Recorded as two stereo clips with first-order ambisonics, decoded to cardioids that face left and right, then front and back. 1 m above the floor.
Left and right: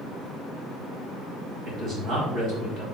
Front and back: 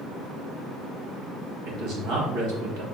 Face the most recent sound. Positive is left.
turn(degrees=-145)